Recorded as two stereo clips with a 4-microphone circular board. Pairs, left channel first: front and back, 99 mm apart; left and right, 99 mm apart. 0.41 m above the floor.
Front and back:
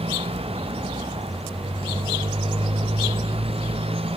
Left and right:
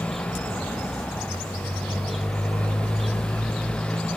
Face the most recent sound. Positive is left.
turn(degrees=170)